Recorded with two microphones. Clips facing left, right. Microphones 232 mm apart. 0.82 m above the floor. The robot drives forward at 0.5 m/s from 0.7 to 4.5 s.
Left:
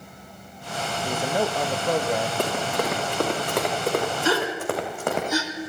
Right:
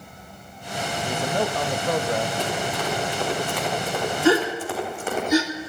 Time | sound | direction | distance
1.1 | a man speaking | 10° left (ahead or behind) | 0.5 m
2.4 | running footsteps | 65° left (ahead or behind) | 4.5 m
4.2 | a gasp | 60° right (ahead or behind) | 2 m